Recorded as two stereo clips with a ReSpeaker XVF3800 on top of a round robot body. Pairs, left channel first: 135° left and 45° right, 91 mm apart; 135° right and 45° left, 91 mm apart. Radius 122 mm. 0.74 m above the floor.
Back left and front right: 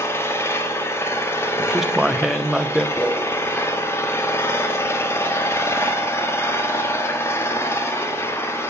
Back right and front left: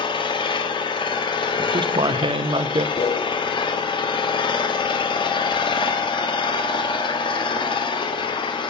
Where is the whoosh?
155° right, 0.7 m.